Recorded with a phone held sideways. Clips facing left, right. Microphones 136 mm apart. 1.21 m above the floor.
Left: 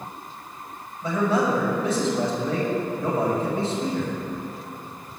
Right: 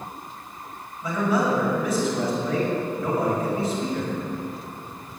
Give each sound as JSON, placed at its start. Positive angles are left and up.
{"t": 1.0, "sound": "a man speaking", "side_deg": 30, "distance_m": 6.5}